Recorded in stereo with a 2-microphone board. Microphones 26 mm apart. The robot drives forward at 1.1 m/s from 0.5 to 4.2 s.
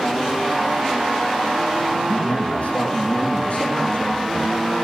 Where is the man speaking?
65° left (ahead or behind), 4.5 m; by 4.6 s 45° left (ahead or behind), 6 m.